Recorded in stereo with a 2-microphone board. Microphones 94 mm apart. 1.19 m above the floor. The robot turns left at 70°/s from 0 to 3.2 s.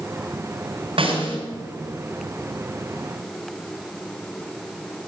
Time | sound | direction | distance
1.0 | a snare drum | 75° right (ahead or behind) | 3.5 m